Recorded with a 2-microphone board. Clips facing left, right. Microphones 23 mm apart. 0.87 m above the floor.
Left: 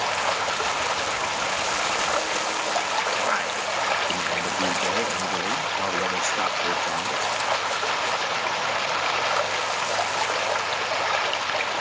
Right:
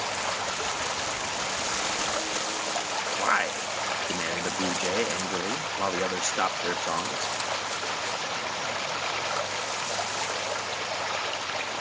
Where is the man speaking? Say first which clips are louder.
Left 1 dB; 15° right (ahead or behind).